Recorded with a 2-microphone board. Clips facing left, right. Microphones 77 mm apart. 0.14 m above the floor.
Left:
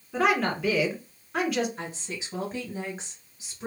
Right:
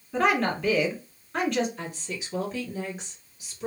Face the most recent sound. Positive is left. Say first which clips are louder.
# right 1 dB
turn(degrees=35)  # may be behind; listen again after turning